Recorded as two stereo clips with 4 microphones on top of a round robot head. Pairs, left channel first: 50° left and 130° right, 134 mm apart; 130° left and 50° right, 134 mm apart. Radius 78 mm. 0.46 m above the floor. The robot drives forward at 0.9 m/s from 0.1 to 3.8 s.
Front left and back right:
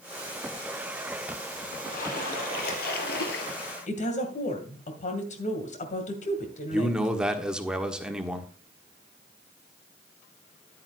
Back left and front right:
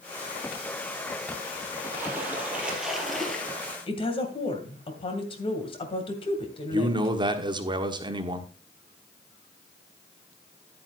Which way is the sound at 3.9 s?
80° left.